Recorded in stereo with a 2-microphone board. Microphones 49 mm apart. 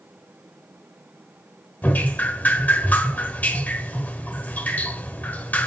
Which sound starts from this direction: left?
Dripping, at 1.8 s.